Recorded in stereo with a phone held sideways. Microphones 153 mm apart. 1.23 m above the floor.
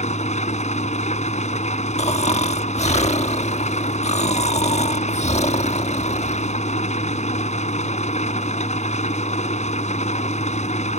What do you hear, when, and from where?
0.0 s an engine running: 50° left (ahead or behind)
2.0 s snoring: 50° left (ahead or behind)